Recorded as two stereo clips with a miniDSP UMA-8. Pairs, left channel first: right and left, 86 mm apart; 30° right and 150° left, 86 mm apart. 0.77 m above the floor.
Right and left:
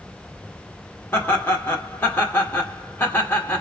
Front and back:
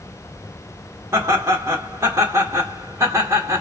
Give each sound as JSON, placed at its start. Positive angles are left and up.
{"t": 1.1, "sound": "laughter", "azimuth_deg": -155, "distance_m": 1.6}